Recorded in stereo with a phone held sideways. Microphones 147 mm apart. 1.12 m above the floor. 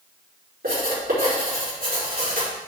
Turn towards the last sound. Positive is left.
turn(degrees=-70)  # may be behind; listen again after turning